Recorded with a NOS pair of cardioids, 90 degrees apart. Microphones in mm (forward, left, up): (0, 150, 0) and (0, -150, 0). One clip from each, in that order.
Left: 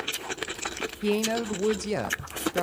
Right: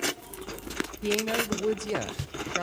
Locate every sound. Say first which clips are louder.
1.0 s a woman speaking: left 1 dB; 15° left, 0.9 m